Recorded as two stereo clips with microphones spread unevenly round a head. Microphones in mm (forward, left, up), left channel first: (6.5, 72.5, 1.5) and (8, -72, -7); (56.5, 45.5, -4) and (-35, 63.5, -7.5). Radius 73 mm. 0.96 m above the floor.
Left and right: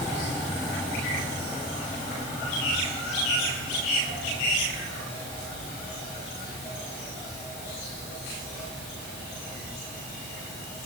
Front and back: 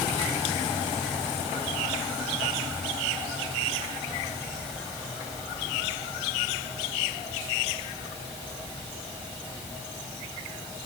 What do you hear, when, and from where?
Only background noise.